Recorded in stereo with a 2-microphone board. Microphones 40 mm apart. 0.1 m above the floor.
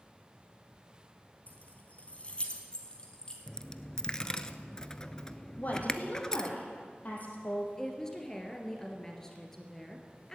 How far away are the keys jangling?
About 1.4 m.